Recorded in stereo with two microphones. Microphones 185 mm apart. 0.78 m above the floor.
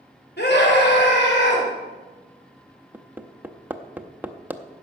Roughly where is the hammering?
Centre.